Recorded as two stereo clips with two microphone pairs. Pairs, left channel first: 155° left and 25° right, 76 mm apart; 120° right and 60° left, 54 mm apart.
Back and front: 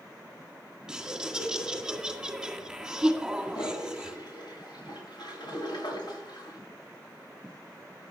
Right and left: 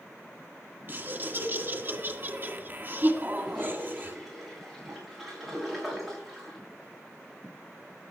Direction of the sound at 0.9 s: 45° left.